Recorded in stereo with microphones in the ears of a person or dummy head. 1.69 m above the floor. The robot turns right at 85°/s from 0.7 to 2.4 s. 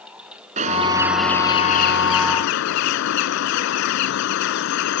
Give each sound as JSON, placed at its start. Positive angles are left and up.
{"t": 0.6, "sound": "a bird", "azimuth_deg": -40}